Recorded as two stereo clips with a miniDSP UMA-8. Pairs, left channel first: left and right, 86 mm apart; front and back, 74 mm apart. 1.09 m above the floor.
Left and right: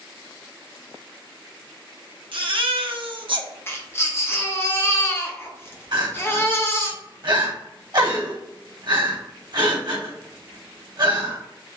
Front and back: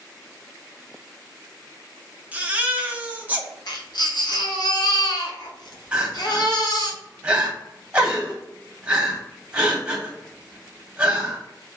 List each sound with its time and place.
2.3 s a baby crying: 110° right, 0.8 m
3.7 s a baby crying: 25° left, 1.1 m
5.9 s crying: 105° right, 1.3 m